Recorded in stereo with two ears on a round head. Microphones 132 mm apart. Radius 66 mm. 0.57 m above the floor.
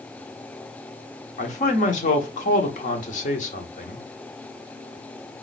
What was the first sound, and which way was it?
A man speaking, 55° left (ahead or behind).